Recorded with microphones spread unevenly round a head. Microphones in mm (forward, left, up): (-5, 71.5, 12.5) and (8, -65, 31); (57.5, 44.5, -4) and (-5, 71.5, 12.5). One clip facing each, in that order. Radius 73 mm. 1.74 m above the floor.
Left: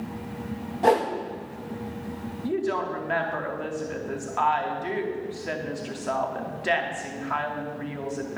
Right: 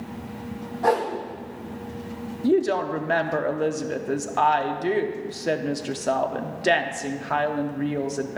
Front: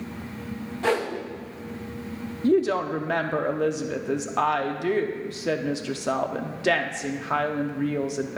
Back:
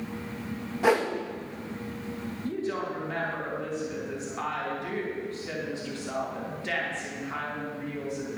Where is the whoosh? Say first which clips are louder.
Left 1 dB, back 1 dB; 140° left, 1.1 m.